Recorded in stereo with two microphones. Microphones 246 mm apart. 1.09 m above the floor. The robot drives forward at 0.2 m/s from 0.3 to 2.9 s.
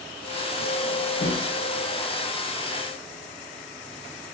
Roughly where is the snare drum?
Left.